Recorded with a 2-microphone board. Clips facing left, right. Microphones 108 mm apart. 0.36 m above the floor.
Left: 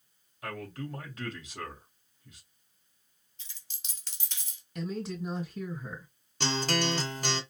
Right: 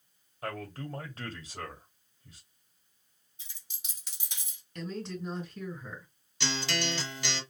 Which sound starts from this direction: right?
A man speaking, at 0.4 s.